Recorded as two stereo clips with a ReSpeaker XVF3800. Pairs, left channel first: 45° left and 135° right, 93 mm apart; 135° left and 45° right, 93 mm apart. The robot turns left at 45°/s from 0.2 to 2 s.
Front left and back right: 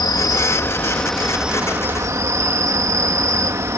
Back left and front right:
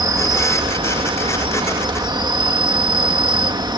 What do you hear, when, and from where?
0.0 s an insect: straight ahead; by 3.8 s 80° right